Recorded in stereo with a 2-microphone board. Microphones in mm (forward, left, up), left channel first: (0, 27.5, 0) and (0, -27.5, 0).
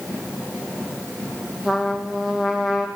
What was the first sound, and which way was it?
A trumpet, 10° right (ahead or behind).